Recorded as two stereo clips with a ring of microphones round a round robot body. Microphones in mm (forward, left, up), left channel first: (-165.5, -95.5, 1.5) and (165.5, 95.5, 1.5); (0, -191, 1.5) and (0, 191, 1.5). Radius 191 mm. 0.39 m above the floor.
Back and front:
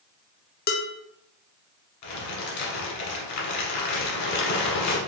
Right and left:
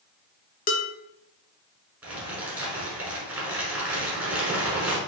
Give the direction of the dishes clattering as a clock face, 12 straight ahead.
4 o'clock.